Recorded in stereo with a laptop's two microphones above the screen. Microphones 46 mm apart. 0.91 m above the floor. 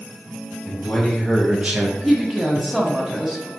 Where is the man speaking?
25° left (ahead or behind), 1.7 m; by 1.9 s 55° right (ahead or behind), 0.6 m.